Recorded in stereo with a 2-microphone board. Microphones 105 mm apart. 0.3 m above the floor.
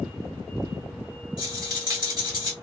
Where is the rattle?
40° right (ahead or behind), 2.0 m.